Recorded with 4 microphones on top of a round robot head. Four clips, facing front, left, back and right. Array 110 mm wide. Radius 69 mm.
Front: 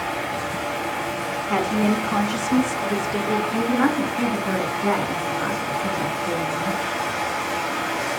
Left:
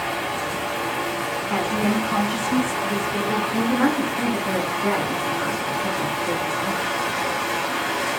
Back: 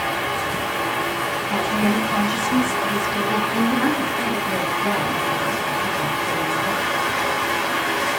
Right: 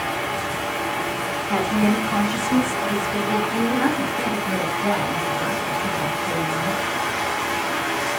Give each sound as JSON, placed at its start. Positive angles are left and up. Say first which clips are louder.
{"t": 0.0, "sound": "running water", "louder": "right 1 dB, back 3 dB", "azimuth_deg": 160, "distance_m": 1.2}
{"t": 1.5, "sound": "a woman speaking", "louder": "right 3 dB, front 1 dB", "azimuth_deg": -5, "distance_m": 0.8}
{"t": 3.5, "sound": "a woman speaking", "louder": "even, front 1 dB", "azimuth_deg": 30, "distance_m": 1.5}